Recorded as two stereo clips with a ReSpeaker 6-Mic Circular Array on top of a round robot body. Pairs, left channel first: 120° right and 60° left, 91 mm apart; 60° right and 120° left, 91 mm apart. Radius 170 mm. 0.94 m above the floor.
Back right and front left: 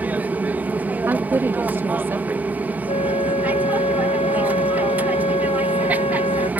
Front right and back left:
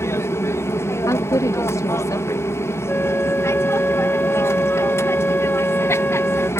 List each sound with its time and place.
0.0 s an aircraft: 10° right
1.1 s a woman speaking: 5° right
2.9 s a flute: 135° right